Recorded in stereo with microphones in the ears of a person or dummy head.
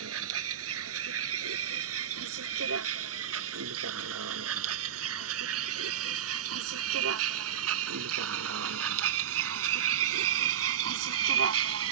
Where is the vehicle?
90° right; by 11.9 s 85° right.